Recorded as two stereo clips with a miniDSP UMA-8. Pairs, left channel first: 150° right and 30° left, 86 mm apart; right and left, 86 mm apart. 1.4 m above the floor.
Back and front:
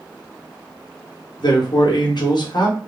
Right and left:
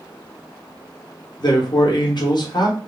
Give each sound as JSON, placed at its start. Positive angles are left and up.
{"t": 1.4, "sound": "a man speaking", "azimuth_deg": -120, "distance_m": 0.8}